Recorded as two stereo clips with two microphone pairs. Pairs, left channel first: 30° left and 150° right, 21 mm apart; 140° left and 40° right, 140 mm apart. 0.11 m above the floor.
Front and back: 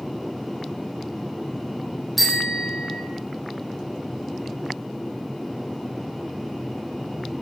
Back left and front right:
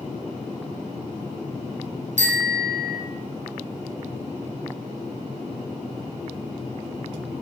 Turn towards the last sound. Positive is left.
turn(degrees=-60)